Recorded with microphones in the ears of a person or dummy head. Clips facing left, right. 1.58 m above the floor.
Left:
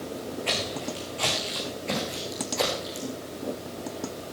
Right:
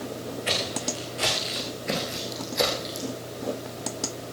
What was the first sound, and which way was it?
Footsteps, 20° right (ahead or behind).